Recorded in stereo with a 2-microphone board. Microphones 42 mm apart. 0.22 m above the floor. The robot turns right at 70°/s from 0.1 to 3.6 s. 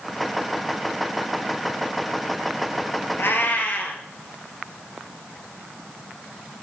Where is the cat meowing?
65° left (ahead or behind), 1.5 m; by 4.0 s 40° left (ahead or behind), 1.5 m.